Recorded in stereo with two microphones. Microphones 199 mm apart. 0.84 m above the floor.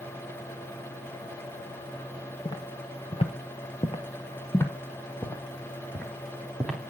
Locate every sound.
2.5 s footsteps: 20° left (ahead or behind), 1.6 m; by 6.8 s centre (ahead or behind), 3.5 m